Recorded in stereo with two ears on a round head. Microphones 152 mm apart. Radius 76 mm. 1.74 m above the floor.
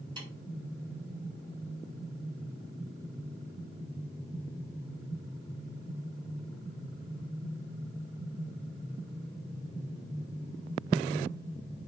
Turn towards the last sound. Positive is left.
turn(degrees=-30)  # may be behind; listen again after turning